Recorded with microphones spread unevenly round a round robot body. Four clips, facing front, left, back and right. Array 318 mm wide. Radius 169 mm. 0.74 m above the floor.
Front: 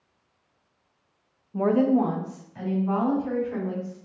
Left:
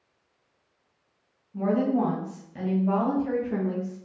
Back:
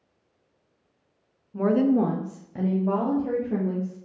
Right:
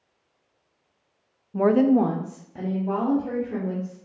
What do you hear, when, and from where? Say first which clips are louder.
1.5 s a woman speaking: right 6 dB, even; 60° right, 0.7 m; by 4.0 s 175° left, 2 m